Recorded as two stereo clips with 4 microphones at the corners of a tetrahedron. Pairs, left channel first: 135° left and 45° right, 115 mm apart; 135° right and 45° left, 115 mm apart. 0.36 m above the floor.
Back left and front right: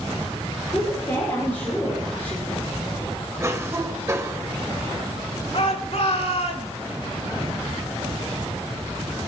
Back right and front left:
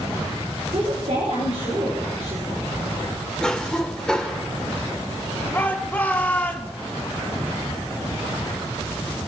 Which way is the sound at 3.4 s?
60° right.